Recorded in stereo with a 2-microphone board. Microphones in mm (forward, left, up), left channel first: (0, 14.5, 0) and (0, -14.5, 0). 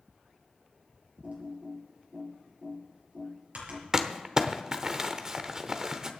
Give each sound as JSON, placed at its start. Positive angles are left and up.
{"t": 1.2, "sound": "typing on a keyboard", "side_deg": -55, "distance_m": 5.5}
{"t": 3.9, "sound": "crumpling", "side_deg": -20, "distance_m": 0.9}